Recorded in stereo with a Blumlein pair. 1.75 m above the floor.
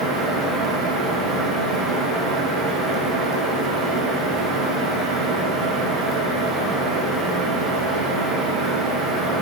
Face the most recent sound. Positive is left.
turn(degrees=-25)